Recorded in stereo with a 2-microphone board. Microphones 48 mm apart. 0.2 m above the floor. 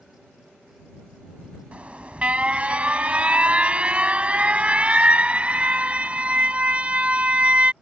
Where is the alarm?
30° right (ahead or behind).